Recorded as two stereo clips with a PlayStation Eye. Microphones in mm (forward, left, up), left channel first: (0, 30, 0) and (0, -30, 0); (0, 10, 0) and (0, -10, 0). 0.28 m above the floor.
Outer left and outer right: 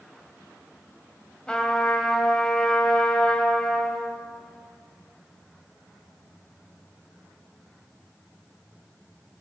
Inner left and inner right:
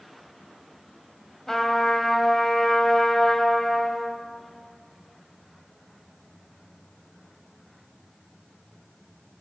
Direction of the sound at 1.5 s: 15° left (ahead or behind).